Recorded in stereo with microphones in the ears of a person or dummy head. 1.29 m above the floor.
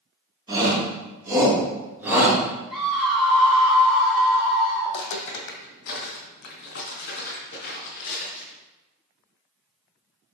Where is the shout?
20° right (ahead or behind), 3.5 m; by 2.4 s 10° right (ahead or behind), 4 m.